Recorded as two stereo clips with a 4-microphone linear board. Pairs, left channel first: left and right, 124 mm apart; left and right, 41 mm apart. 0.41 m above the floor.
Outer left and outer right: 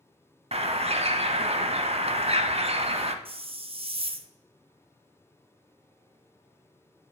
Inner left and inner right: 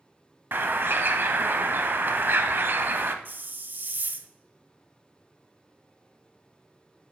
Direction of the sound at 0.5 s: 55° right (ahead or behind).